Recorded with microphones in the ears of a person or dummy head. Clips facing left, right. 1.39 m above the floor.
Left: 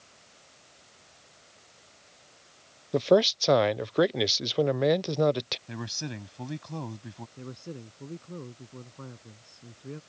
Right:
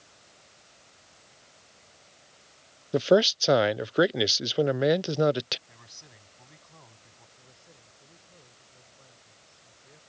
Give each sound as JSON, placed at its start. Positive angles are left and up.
{"t": 2.9, "sound": "a man speaking", "side_deg": -5}
{"t": 5.7, "sound": "a man speaking", "side_deg": 85}
{"t": 7.4, "sound": "a man speaking", "side_deg": 90}